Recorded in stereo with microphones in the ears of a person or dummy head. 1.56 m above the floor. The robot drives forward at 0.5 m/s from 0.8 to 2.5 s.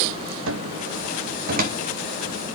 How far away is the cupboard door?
About 0.8 m.